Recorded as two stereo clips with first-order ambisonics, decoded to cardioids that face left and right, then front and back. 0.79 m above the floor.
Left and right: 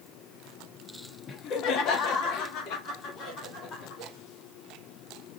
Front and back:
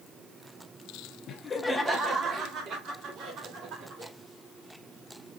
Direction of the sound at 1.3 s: 40° left.